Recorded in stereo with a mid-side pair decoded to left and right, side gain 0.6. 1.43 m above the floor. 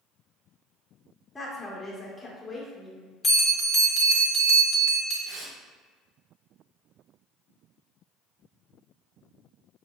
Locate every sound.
1.4 s a woman speaking: 15° left, 1.4 m
3.2 s a bell: 30° left, 1.4 m
5.2 s tearing paper: 45° right, 1.6 m